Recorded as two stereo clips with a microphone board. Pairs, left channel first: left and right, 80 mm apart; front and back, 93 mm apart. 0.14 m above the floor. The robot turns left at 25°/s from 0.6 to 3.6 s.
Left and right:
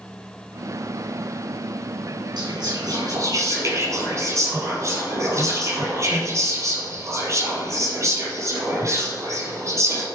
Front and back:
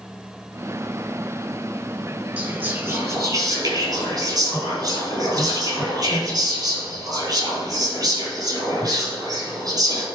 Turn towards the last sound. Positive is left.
turn(degrees=-135)